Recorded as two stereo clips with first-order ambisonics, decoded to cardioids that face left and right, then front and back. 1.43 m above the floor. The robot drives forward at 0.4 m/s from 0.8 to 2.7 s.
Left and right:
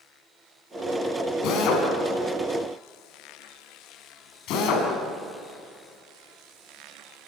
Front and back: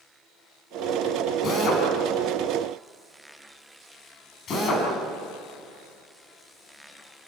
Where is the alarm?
I don't hear an alarm.